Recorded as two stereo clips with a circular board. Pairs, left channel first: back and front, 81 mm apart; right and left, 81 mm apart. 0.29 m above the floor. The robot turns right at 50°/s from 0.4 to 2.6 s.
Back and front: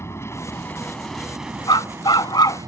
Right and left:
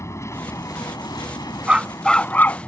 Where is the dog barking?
165° left; by 2.6 s 145° right.